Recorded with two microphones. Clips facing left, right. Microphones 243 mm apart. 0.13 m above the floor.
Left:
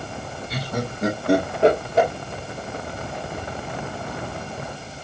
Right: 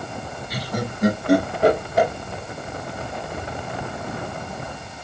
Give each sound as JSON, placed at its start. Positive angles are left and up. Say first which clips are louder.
{"t": 0.5, "sound": "laughter", "louder": "even", "side_deg": 25, "distance_m": 2.0}